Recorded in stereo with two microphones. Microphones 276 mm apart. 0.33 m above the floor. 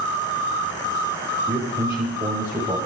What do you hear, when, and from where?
1.5 s a man speaking: 5° right (ahead or behind), 1.1 m; by 2.8 s 10° right (ahead or behind), 1.6 m